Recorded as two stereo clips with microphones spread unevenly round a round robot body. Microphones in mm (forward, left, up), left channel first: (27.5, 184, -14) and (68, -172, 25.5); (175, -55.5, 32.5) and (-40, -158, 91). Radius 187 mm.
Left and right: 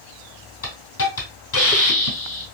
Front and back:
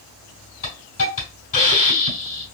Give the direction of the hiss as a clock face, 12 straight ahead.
10 o'clock.